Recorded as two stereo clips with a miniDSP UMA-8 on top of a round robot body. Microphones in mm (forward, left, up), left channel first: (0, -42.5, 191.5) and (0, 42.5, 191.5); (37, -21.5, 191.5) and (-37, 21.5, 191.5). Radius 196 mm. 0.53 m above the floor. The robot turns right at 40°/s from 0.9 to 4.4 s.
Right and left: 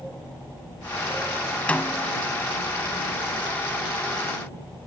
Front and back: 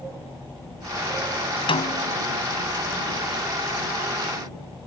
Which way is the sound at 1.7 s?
15° right.